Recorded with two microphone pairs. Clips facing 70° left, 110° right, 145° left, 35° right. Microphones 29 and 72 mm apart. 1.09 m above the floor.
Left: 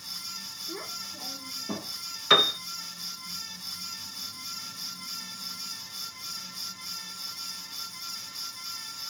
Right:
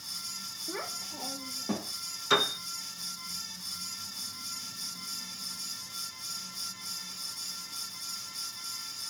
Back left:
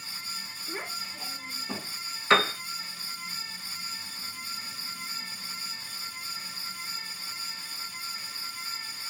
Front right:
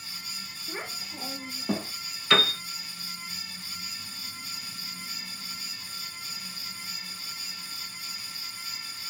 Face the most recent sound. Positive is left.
turn(degrees=110)